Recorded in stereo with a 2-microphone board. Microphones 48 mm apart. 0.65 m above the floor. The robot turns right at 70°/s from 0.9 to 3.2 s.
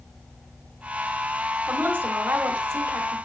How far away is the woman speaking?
About 2.5 m.